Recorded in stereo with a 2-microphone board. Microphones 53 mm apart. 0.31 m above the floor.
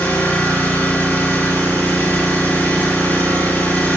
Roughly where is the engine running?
Left.